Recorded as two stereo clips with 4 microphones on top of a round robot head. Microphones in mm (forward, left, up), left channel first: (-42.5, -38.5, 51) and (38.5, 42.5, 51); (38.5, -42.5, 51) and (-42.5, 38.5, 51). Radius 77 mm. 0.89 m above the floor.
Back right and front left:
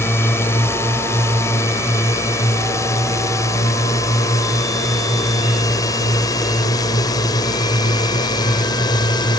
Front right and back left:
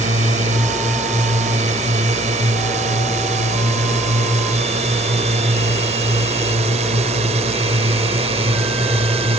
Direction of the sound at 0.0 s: 155° left.